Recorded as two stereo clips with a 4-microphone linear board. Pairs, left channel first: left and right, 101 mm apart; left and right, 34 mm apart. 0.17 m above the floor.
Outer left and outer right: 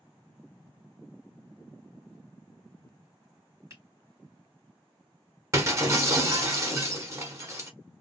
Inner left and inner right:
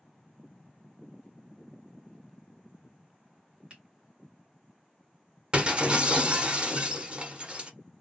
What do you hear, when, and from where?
3.7 s a finger snap: 30° right (ahead or behind), 1.5 m
5.5 s breaking glass: 30° right (ahead or behind), 0.9 m